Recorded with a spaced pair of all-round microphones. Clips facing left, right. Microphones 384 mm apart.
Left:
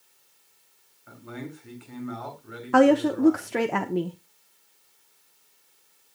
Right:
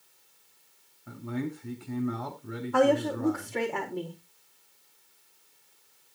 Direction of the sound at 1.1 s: 50° right (ahead or behind).